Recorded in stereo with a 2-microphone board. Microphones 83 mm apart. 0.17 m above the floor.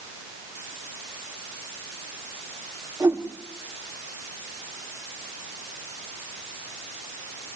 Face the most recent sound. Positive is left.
turn(degrees=-30)  # may be behind; listen again after turning